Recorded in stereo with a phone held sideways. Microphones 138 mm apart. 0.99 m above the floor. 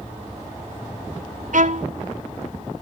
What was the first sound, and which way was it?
A violin, 70° right (ahead or behind).